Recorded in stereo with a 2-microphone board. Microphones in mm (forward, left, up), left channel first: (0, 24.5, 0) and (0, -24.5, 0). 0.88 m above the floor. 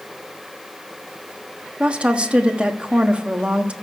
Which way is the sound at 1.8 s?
25° right (ahead or behind).